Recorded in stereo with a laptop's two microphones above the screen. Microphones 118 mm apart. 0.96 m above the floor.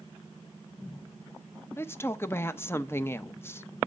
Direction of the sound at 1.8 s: 20° left (ahead or behind).